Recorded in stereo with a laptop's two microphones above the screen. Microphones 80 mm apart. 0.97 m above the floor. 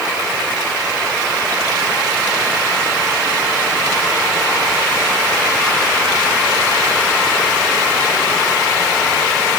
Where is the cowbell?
I don't hear a cowbell.